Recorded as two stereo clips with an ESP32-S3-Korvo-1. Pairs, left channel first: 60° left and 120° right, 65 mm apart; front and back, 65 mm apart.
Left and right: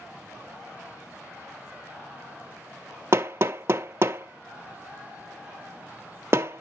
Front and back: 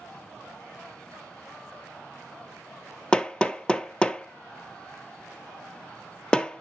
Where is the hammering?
75° right, 0.6 m.